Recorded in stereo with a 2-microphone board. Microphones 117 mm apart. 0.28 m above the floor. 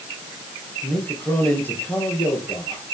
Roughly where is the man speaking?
Centre.